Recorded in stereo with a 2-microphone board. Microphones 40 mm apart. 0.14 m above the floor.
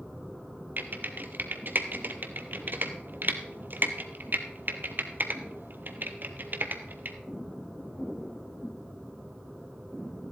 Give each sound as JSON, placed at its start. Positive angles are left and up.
{"t": 0.8, "sound": "typing on a keyboard", "side_deg": -50, "distance_m": 1.1}